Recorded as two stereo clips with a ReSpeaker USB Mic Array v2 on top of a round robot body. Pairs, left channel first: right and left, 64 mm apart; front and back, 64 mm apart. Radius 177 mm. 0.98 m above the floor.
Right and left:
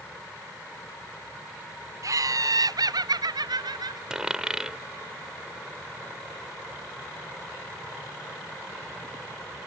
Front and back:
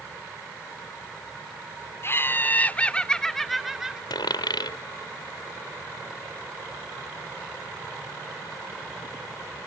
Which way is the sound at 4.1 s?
10° left.